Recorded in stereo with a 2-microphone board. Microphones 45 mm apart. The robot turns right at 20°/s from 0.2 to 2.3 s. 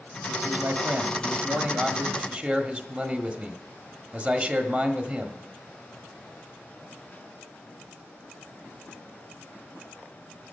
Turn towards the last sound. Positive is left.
turn(degrees=-40)